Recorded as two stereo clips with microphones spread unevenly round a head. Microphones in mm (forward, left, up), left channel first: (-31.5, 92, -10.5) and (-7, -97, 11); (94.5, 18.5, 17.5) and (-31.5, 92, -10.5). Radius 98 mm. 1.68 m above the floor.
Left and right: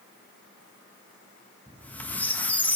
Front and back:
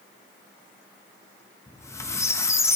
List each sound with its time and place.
1.7 s a squeak: 10° left, 1.1 m